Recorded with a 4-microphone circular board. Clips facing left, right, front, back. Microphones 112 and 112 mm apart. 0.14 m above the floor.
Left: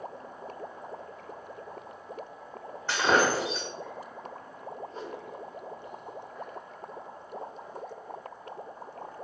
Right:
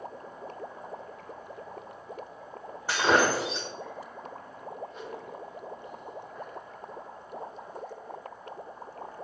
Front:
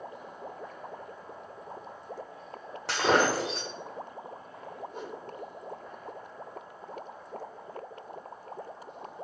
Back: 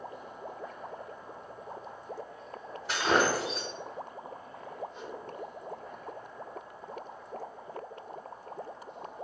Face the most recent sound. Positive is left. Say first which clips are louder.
# left 1 dB, front 2 dB
turn(degrees=35)